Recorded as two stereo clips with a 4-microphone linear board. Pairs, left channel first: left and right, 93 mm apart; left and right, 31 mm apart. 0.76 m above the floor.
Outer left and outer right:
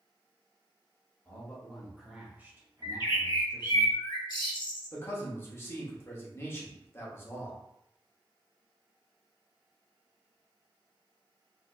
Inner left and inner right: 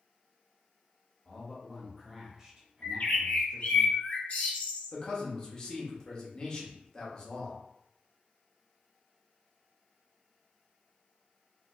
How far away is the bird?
About 1.5 m.